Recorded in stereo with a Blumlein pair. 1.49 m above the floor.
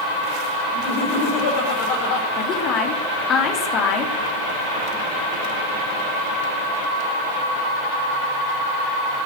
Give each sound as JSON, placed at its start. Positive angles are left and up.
{"t": 0.7, "sound": "laughter", "azimuth_deg": 45, "distance_m": 4.5}
{"t": 2.4, "sound": "a woman speaking", "azimuth_deg": 30, "distance_m": 3.0}